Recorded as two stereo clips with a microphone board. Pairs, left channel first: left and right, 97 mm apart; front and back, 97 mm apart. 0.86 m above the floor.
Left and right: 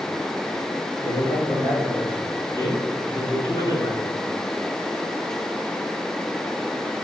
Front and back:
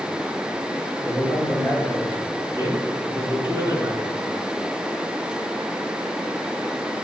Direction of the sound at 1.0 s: 65° left.